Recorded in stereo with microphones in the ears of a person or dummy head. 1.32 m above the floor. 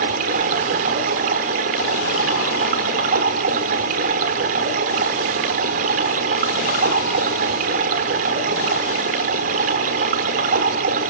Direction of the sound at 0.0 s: 40° right (ahead or behind).